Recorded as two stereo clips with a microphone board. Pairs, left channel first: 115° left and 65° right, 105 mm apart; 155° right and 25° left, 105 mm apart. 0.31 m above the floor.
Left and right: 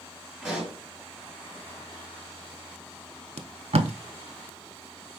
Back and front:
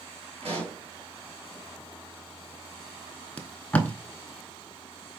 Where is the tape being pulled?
80° right, 0.6 m.